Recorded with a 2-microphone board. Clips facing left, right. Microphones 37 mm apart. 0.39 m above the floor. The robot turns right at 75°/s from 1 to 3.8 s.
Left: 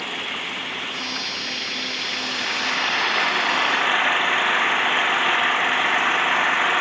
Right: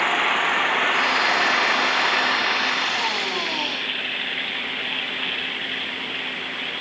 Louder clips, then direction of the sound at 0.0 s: Right 8 dB; 135° right.